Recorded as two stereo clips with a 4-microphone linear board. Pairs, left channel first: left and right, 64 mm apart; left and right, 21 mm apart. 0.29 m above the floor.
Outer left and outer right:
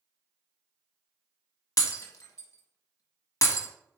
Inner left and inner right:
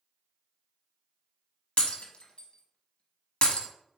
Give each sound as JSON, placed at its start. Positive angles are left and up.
{"t": 1.8, "sound": "breaking glass", "side_deg": 65, "distance_m": 1.0}